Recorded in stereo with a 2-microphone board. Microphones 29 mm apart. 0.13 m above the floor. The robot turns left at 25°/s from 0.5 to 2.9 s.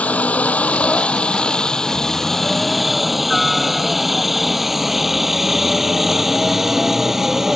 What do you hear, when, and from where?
0.0 s a helicopter: 50° left (ahead or behind); by 7.5 s 20° right (ahead or behind)